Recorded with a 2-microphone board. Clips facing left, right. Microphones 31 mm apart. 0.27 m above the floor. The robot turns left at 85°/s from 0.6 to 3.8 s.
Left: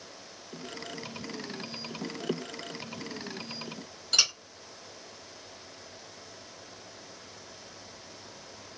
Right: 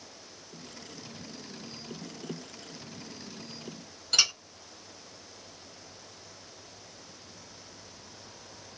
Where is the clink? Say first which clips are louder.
Even; 5° right (ahead or behind), 1.6 m.